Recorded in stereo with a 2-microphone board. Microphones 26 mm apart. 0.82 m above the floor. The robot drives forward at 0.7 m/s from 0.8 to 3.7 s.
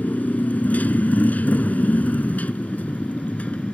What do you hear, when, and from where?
0.0 s a motorcycle: 80° left; by 3.8 s 65° left (ahead or behind)